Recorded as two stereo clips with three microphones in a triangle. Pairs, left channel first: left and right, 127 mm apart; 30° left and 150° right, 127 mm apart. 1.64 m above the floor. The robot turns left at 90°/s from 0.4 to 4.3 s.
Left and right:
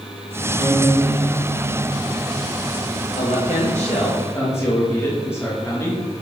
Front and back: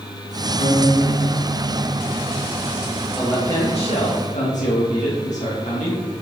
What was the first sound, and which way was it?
A guitar, 60° left.